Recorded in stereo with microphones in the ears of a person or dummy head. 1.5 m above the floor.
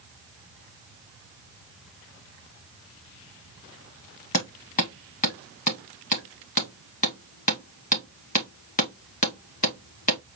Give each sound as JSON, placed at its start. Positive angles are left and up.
{"t": 4.3, "sound": "hammering", "side_deg": 40, "distance_m": 0.9}